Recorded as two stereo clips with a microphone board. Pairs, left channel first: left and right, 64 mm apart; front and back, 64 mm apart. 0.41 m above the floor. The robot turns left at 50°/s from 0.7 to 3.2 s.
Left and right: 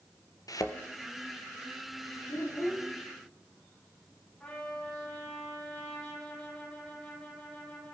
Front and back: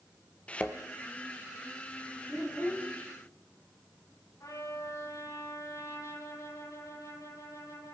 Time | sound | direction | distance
0.5 | a thud | 70° left | 1.5 m
2.3 | a child speaking | 70° left | 9 m
4.4 | a trumpet | 10° left | 9 m